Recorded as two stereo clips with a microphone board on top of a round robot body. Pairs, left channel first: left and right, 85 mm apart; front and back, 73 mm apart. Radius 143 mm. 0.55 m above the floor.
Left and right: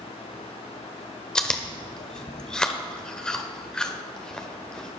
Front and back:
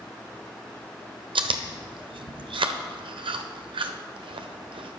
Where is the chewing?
170° left, 1.0 m.